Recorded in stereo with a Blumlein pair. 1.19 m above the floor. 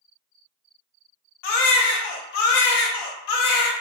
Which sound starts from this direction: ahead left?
A baby crying, at 1.4 s.